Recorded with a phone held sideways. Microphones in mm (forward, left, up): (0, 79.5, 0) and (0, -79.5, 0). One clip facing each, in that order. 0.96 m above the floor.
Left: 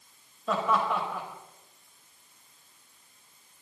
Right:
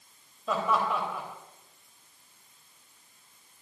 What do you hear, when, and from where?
0.5 s laughter: centre (ahead or behind), 4.5 m